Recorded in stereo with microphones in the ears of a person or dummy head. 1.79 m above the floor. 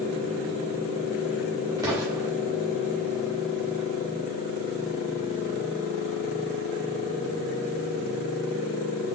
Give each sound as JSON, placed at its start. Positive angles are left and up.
{"t": 1.8, "sound": "an explosion", "side_deg": -10, "distance_m": 4.5}